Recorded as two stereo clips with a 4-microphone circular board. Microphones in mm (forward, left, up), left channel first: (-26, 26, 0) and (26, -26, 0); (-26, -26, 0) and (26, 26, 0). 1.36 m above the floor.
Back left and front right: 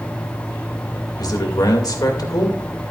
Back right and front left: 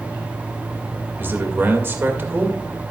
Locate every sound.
1.2 s a man speaking: 105° left, 2 m